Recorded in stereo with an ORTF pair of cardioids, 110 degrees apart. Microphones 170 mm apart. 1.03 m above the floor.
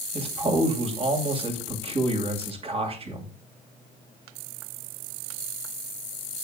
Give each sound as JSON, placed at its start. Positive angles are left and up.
{"t": 0.1, "sound": "a man speaking", "azimuth_deg": -35, "distance_m": 2.5}